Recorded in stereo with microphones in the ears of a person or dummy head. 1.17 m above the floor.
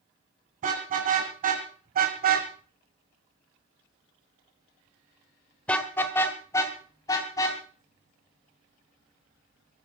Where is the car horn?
40° right (ahead or behind), 4.5 m; by 9.8 s 25° left (ahead or behind), 7 m.